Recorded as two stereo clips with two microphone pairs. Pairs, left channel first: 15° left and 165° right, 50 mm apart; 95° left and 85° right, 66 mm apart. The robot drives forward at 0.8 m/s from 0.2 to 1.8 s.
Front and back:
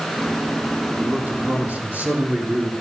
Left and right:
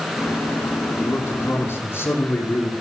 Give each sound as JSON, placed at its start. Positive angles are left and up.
{"t": 1.0, "sound": "a man speaking", "azimuth_deg": 140, "distance_m": 5.5}